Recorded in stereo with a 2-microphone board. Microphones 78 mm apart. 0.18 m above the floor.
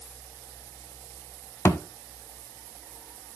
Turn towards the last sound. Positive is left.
turn(degrees=35)  # may be behind; listen again after turning